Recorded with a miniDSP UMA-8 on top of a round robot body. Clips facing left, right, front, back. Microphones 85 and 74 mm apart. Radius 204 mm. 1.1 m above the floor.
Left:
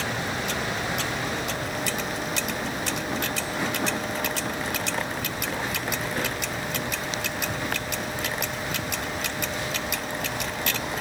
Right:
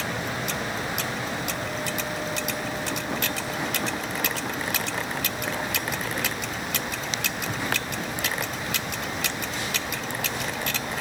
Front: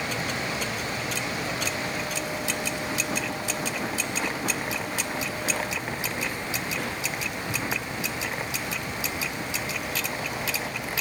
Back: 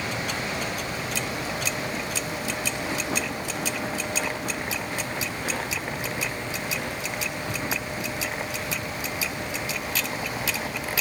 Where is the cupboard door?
No cupboard door in this recording.